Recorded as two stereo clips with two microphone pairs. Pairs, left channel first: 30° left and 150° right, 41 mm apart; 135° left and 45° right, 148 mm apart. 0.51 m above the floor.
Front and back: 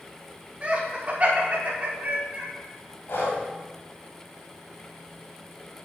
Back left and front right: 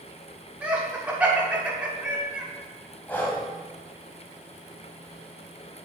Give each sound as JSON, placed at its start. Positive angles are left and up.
{"t": 0.6, "sound": "laughter", "azimuth_deg": -120, "distance_m": 1.1}
{"t": 3.1, "sound": "breathing", "azimuth_deg": 55, "distance_m": 1.7}